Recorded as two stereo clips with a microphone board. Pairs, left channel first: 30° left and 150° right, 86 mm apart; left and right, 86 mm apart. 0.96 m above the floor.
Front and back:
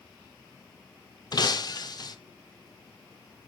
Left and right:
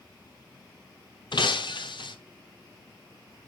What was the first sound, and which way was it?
Breaking glass, 70° left.